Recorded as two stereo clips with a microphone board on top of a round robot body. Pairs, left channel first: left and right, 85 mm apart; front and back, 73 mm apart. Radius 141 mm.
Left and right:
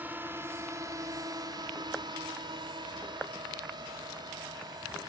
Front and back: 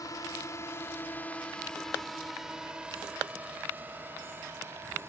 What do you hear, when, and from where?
0.0 s a drone: 25° right; by 5.1 s 125° right